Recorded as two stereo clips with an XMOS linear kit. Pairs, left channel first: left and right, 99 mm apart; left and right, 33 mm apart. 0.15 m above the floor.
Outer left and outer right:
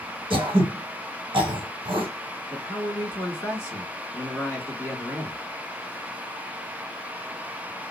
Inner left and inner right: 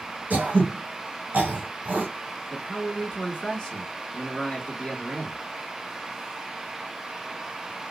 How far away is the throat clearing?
About 1.3 m.